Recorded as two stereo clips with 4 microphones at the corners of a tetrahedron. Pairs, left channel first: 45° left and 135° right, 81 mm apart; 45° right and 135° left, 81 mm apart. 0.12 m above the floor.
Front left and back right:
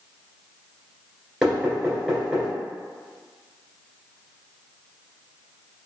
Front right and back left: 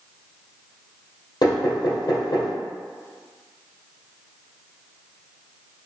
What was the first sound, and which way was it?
Knocking, 55° right.